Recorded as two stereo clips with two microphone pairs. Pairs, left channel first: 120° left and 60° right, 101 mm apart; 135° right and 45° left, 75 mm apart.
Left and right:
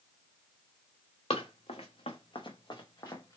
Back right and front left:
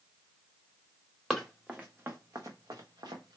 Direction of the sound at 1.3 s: 135° left.